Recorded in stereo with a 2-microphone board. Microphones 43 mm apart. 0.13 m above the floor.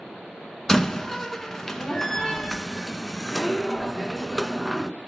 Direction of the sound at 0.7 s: 10° left (ahead or behind).